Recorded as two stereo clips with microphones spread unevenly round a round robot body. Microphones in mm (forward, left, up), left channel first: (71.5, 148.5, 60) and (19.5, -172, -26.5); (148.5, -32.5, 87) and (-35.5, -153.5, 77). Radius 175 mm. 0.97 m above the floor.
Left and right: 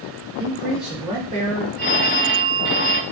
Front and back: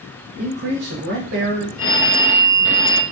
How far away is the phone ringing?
About 0.8 m.